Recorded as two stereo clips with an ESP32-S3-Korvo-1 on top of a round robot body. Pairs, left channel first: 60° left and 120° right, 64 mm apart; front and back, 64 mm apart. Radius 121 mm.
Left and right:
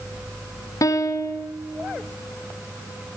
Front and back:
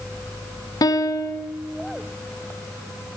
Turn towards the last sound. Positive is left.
turn(degrees=25)